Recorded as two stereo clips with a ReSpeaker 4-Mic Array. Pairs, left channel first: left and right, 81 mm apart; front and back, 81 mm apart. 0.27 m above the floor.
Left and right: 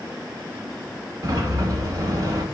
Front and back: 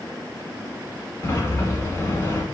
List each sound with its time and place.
1.2 s a sliding door: 55° right, 0.8 m